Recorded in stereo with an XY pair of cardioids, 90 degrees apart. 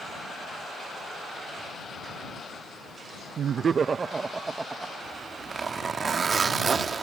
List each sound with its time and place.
3.4 s laughter: 65° right; by 4.9 s 20° right
5.0 s a zipper: 45° right